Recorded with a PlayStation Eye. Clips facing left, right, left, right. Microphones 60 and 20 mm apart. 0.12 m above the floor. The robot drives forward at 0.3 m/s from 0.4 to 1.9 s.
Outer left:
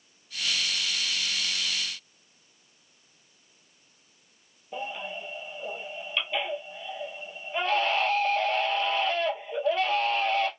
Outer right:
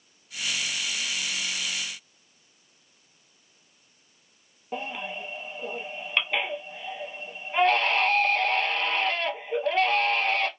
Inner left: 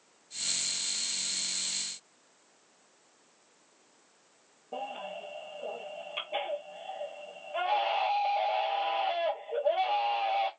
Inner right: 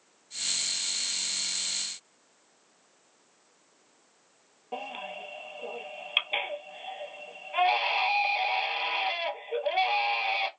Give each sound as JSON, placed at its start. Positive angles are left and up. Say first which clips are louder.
{"t": 4.7, "sound": "a baby crying", "louder": "outer right 1 dB, inner right 1 dB", "side_deg": -55, "distance_m": 1.0}